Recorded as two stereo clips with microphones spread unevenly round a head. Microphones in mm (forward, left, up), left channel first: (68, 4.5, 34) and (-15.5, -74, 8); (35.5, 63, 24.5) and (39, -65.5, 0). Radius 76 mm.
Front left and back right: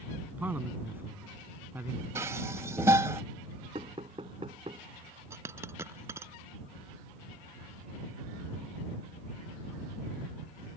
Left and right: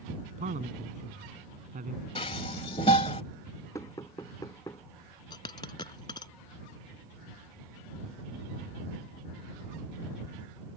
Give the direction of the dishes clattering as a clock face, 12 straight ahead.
7 o'clock.